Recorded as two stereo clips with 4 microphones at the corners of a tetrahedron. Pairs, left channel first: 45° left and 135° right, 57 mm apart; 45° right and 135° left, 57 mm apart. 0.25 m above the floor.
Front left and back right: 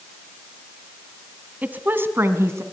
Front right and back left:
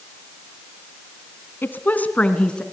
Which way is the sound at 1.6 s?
85° right.